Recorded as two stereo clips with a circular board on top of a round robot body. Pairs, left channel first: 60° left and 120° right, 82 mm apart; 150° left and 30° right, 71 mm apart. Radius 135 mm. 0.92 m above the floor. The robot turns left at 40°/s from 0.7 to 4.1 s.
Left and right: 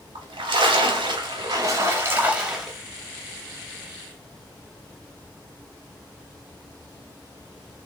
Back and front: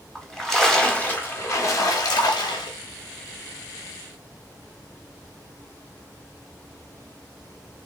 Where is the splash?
130° right, 0.5 m; by 2.8 s 150° left, 0.5 m.